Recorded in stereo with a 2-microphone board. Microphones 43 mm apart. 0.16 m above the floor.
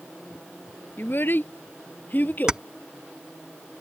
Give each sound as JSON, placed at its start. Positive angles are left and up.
{"t": 1.0, "sound": "a child speaking", "side_deg": 55}
{"t": 2.5, "sound": "keys jangling", "side_deg": -20}